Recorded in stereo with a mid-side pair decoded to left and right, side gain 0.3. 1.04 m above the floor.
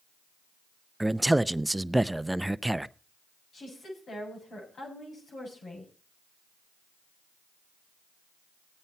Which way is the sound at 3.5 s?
70° left.